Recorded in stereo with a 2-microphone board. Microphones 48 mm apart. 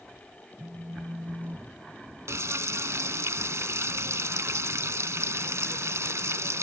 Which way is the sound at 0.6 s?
45° right (ahead or behind).